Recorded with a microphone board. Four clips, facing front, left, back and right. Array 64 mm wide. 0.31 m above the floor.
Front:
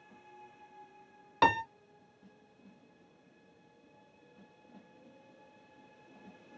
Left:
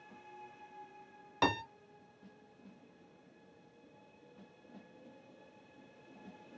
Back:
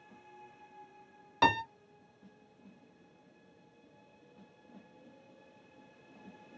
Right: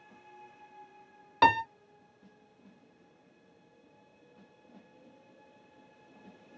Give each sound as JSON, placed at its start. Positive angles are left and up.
{"t": 1.4, "sound": "a piano", "azimuth_deg": -60, "distance_m": 0.6}